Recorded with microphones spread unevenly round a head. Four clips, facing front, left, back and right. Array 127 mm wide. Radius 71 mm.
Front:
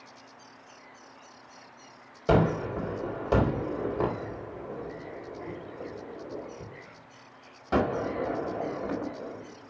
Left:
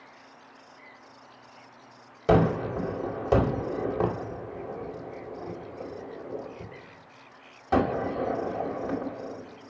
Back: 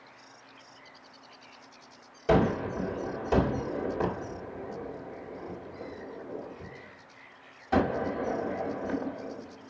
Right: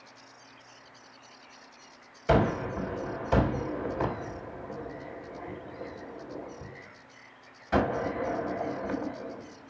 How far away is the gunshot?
About 5 m.